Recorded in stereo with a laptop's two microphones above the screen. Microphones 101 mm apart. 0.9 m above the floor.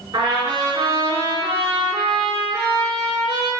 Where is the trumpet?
35° right (ahead or behind), 5 m.